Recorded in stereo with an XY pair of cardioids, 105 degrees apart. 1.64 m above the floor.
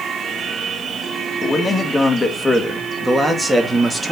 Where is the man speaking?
20° left, 2.5 m; by 4.1 s 15° right, 2.5 m.